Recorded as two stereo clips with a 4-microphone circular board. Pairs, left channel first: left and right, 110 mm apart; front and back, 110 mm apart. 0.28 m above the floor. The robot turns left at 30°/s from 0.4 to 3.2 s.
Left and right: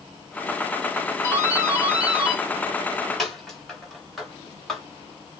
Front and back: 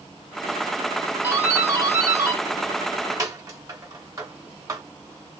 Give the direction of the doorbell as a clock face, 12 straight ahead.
4 o'clock.